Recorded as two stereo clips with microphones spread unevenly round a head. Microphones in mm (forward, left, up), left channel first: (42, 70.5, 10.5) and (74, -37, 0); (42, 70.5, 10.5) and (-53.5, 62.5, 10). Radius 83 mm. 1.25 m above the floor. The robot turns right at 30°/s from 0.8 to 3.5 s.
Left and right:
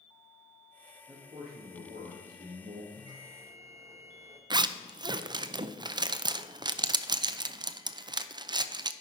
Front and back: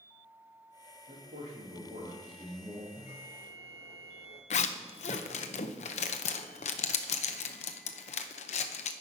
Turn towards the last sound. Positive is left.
turn(degrees=-20)